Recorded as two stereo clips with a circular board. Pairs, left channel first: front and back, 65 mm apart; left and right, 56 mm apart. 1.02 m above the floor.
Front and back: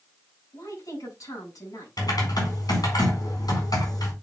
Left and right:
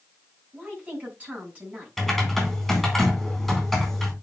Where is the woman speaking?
25° right, 7 m.